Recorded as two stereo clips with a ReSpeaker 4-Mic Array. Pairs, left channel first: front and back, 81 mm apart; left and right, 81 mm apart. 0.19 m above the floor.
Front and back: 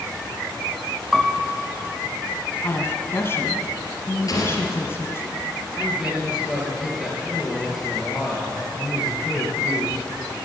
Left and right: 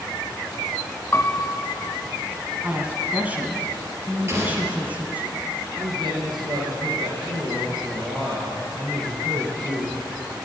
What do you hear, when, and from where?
1.1 s a piano: 95° left, 0.6 m
2.6 s a woman speaking: 35° right, 1.2 m
4.3 s an explosion: 35° right, 3 m
5.8 s a man speaking: 100° right, 3.5 m